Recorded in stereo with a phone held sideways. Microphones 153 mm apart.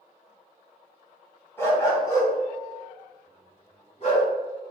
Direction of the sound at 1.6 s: 15° left (ahead or behind).